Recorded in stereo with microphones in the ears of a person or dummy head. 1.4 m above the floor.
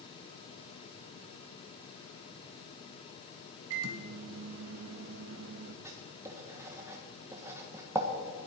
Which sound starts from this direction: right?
A microwave, at 3.7 s.